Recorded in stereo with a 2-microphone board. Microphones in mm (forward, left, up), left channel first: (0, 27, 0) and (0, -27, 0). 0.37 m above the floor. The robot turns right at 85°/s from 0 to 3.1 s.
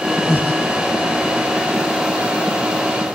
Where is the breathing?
120° left, 2.0 m; by 0.6 s 155° left, 2.0 m.